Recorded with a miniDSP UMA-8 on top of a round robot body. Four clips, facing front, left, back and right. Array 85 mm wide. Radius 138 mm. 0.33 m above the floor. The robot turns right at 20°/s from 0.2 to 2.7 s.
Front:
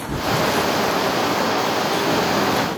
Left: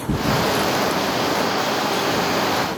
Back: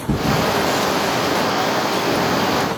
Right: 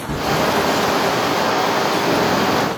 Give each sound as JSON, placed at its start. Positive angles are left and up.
{"t": 0.1, "sound": "a thud", "azimuth_deg": 160, "distance_m": 5.0}